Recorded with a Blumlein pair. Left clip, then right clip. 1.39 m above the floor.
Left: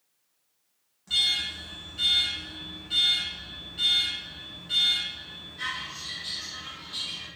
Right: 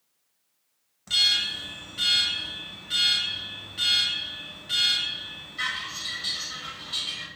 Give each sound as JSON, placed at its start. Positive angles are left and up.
{"t": 1.1, "sound": "an alarm", "azimuth_deg": -65, "distance_m": 1.2}